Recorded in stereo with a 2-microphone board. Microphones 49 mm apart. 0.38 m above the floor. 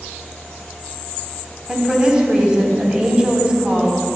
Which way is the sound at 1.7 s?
20° right (ahead or behind).